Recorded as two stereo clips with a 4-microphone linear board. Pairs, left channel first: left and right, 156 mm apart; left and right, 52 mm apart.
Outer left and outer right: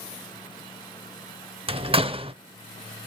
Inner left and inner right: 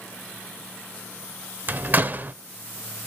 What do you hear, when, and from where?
1.7 s a door slam: 35° right (ahead or behind), 0.6 m